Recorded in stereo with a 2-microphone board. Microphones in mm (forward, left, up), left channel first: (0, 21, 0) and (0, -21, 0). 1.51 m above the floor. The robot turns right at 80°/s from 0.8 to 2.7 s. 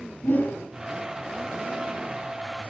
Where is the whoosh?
55° left (ahead or behind), 4.5 m.